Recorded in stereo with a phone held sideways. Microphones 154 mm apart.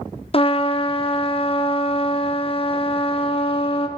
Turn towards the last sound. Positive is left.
turn(degrees=40)  # may be behind; listen again after turning